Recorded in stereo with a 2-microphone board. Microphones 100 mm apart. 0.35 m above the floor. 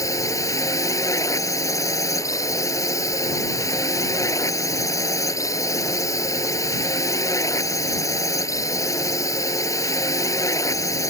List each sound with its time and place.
0.0 s a drone: 35° left (ahead or behind)